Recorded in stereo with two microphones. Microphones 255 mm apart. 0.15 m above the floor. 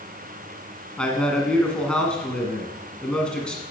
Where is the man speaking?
5° left (ahead or behind), 1.5 m.